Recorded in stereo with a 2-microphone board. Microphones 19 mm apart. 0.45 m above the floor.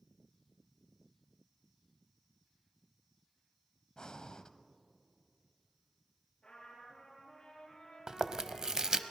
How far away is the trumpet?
About 5.5 m.